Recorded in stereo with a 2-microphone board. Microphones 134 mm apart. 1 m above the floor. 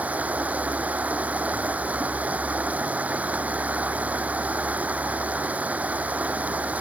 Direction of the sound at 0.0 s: 10° right (ahead or behind).